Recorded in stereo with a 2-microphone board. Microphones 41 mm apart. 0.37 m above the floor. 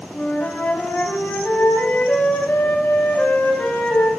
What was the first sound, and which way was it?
A flute, 55° left (ahead or behind).